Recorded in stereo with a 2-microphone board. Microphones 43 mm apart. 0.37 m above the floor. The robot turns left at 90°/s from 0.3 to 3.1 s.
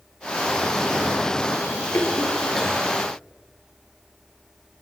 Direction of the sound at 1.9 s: 65° left (ahead or behind).